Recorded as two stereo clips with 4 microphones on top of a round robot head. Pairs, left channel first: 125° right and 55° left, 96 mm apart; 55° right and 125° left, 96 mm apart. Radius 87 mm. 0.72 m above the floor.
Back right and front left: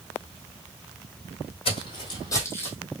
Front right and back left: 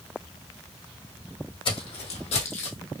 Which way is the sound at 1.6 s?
90° right.